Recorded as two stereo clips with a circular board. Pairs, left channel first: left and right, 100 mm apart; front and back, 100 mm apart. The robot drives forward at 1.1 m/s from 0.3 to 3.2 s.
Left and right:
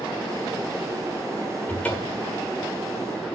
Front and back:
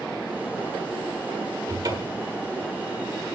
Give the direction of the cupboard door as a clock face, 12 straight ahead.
7 o'clock.